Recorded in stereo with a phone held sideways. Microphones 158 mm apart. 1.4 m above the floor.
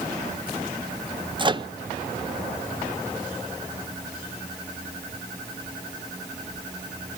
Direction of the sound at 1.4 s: 30° right (ahead or behind).